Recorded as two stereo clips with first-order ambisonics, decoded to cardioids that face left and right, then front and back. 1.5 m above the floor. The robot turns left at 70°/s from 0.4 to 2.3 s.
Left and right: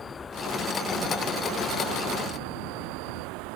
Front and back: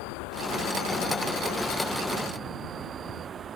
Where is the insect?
20° left; by 3.6 s 115° right.